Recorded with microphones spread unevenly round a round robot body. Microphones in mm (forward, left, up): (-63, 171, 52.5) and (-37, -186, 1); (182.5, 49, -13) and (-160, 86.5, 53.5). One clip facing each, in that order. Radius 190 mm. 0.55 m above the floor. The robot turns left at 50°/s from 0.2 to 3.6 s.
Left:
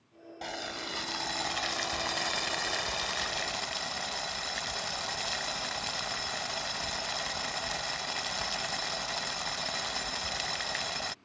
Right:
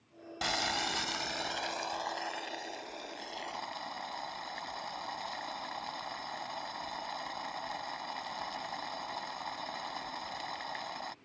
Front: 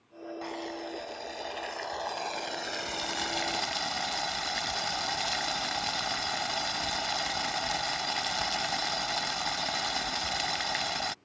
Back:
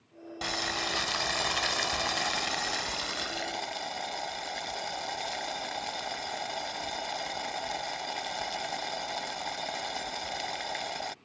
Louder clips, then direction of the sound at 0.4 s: Right 2 dB, back 1 dB; 145° right.